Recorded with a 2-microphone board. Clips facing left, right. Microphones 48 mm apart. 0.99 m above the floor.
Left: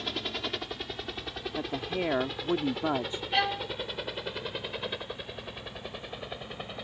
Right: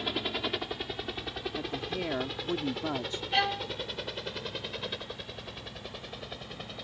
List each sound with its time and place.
0.0 s a helicopter: 5° right (ahead or behind); by 6.8 s 15° left (ahead or behind)
1.6 s a woman speaking: 25° left (ahead or behind)
3.3 s a violin: 5° left (ahead or behind)